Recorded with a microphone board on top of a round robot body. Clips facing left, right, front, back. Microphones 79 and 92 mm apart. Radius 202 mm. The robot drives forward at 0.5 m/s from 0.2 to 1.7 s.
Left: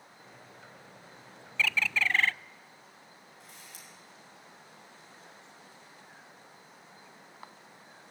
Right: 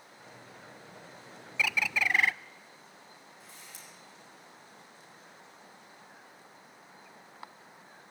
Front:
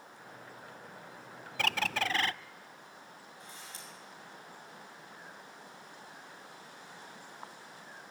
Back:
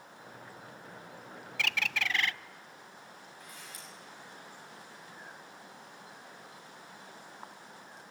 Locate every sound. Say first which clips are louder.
1.6 s a bird: left 1 dB, front 3 dB; 15° right, 0.6 m; by 2.3 s 20° right, 0.6 m
3.4 s a camera shutter: left 1 dB, front 1 dB; 60° left, 7.5 m